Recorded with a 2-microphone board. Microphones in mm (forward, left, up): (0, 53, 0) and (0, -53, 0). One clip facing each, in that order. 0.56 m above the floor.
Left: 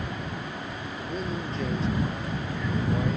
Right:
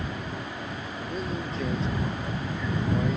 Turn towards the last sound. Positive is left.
turn(degrees=5)  # may be behind; listen again after turning